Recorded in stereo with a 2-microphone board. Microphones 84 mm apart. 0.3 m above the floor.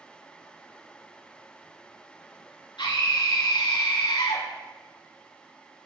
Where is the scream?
75° left (ahead or behind), 4 m.